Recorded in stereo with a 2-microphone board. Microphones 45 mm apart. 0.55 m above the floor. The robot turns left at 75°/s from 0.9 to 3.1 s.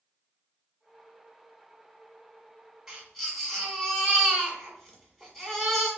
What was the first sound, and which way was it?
A baby crying, 10° right (ahead or behind).